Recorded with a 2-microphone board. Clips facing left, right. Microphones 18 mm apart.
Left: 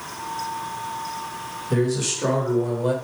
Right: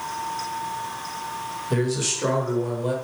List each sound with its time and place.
1.7 s a man speaking: 10° right (ahead or behind), 1.3 m; by 3.0 s 15° left (ahead or behind), 1.3 m